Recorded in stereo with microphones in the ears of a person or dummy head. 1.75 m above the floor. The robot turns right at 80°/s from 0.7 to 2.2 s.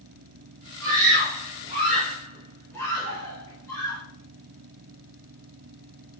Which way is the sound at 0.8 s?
80° right.